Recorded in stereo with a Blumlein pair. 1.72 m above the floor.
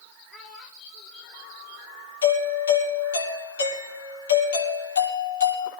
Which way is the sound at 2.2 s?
65° left.